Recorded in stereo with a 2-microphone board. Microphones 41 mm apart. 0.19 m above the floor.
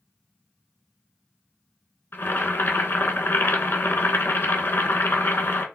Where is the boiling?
50° left (ahead or behind), 0.6 m.